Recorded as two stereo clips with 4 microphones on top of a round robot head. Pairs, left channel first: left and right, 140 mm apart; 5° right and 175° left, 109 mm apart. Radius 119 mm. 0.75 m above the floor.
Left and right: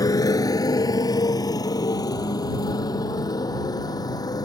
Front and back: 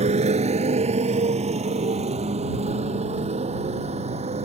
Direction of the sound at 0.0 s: 155° left.